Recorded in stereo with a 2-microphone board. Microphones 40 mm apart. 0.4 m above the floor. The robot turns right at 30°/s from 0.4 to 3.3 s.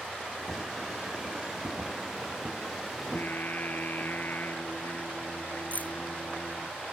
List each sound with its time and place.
3.0 s singing: 60° left (ahead or behind); by 6.7 s 50° left (ahead or behind)
5.7 s keys jangling: 45° left (ahead or behind)